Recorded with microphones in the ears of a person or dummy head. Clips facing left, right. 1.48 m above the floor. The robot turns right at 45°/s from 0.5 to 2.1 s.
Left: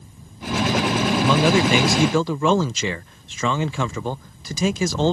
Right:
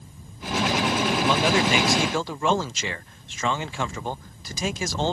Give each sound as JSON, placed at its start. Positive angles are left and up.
{"t": 1.2, "sound": "a man speaking", "azimuth_deg": 65}